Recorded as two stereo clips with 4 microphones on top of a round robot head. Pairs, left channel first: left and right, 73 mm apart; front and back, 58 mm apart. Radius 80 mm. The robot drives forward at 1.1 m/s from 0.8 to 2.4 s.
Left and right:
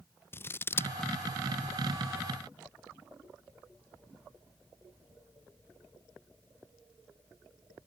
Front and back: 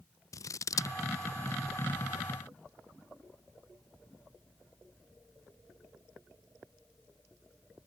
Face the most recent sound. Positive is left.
turn(degrees=165)